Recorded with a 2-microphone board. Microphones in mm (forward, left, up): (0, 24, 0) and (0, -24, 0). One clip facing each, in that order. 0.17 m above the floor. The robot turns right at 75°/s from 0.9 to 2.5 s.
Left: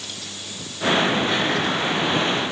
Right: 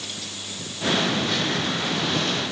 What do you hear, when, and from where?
Only background noise.